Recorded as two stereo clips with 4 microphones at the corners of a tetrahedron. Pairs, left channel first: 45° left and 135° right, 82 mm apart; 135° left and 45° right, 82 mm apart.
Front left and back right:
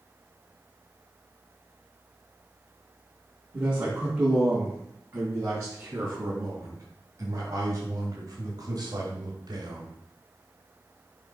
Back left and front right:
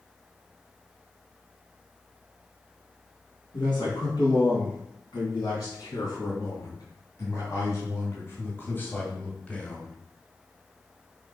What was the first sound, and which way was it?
A man speaking, 160° left.